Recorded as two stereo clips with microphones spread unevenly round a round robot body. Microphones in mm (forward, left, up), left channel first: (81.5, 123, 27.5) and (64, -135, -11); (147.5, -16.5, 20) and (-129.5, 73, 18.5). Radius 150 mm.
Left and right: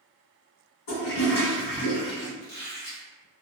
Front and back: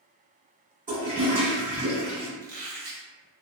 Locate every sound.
0.9 s a toilet flushing: 100° left, 1.9 m
2.4 s a squeak: 120° left, 1.3 m